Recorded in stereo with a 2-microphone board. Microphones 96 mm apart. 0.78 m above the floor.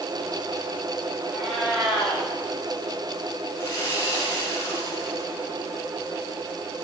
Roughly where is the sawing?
Left.